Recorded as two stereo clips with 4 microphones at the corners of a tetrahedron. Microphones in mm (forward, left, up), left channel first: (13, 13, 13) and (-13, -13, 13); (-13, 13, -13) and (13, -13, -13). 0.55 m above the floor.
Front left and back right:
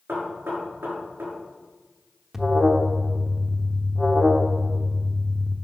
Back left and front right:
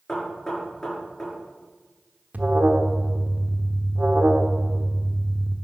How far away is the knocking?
About 6 m.